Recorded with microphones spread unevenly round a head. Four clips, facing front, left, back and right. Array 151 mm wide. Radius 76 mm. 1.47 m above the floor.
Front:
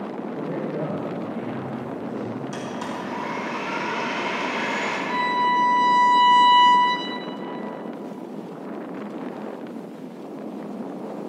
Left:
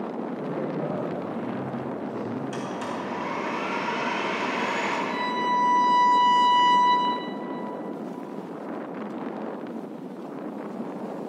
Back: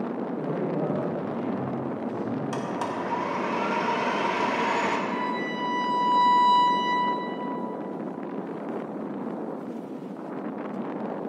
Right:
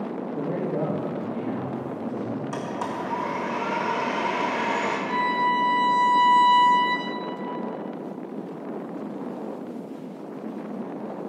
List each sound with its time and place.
0.3 s a man speaking: 70° right, 2.5 m; by 2.4 s 105° right, 3 m
2.5 s a blender: 130° right, 2.0 m
5.1 s a violin: 50° right, 1.8 m